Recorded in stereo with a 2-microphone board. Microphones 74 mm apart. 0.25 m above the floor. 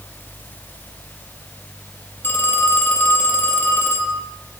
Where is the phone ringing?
25° left (ahead or behind), 4.5 m.